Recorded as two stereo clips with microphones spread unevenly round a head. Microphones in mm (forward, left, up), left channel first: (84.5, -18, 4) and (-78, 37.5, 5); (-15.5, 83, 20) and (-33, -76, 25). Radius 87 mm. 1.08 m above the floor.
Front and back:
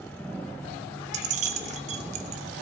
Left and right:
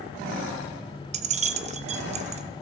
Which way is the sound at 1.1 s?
145° right.